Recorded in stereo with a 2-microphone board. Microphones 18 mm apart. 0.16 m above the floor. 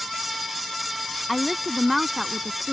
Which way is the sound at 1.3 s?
Centre (ahead or behind).